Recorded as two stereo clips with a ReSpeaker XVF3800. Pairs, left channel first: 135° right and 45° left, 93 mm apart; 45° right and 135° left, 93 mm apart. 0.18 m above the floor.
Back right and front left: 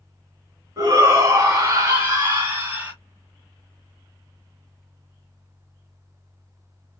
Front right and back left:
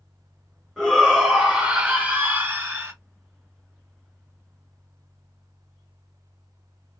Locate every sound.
0.8 s a shout: 40° left, 1.9 m; by 2.9 s 105° left, 1.9 m